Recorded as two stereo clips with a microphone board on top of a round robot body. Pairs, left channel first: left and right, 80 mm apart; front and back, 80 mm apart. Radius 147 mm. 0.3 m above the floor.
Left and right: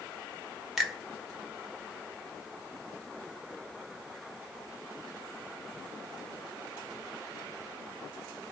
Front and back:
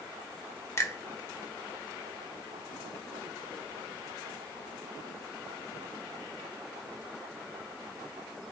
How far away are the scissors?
No scissors in this recording.